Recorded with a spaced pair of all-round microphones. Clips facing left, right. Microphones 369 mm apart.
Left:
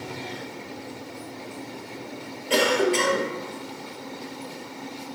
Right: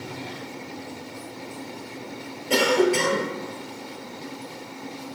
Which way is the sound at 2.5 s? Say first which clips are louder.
Right 2 dB; 55° right (ahead or behind).